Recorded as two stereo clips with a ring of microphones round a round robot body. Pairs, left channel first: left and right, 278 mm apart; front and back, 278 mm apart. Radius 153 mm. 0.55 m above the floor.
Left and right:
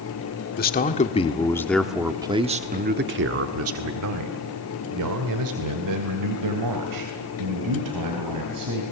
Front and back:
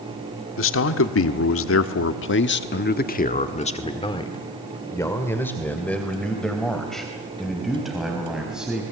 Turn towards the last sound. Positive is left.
turn(degrees=-95)